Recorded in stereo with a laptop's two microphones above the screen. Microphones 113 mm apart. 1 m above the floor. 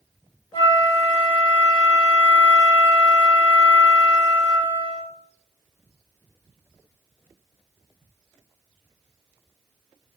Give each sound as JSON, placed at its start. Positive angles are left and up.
{"t": 0.5, "sound": "a flute", "side_deg": 40, "distance_m": 0.7}